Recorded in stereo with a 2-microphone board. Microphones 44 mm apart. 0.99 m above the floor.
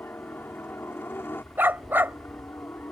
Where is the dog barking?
55° right (ahead or behind).